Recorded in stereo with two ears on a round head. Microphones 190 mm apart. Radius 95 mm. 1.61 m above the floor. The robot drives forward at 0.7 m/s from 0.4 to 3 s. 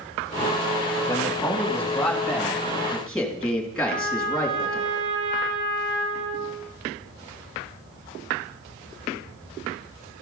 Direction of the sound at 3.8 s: 10° right (ahead or behind).